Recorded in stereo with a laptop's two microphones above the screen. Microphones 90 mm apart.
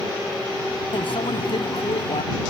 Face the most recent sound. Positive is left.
turn(degrees=75)  # may be behind; listen again after turning